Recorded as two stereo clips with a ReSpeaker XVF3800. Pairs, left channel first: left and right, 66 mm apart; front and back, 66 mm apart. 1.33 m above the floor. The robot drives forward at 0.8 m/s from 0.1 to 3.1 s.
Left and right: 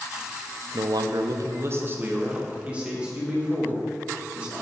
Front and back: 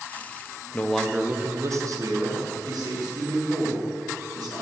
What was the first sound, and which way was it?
A man speaking, 65° right.